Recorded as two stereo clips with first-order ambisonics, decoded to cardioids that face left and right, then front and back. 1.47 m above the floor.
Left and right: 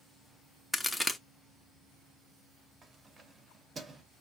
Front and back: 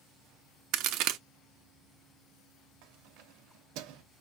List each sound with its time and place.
0.7 s a crack: 175° left, 0.5 m
2.8 s keys jangling: 165° right, 0.6 m